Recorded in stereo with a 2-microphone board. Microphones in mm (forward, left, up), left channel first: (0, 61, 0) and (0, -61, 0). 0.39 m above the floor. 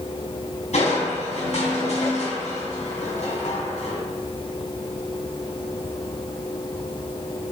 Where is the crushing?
65° left (ahead or behind), 3.5 m.